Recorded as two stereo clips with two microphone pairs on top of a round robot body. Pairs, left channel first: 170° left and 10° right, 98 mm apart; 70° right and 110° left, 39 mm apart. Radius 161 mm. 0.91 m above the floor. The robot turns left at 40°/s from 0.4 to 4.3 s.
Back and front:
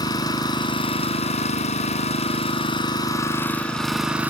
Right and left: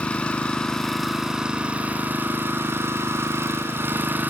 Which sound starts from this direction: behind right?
An engine running, at 0.0 s.